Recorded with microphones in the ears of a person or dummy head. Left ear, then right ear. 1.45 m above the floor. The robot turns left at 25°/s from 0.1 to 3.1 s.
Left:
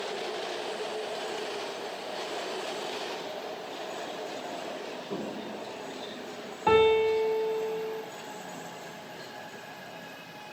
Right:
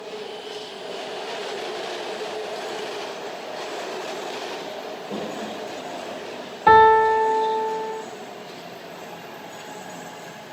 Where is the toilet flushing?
20° left (ahead or behind), 2 m.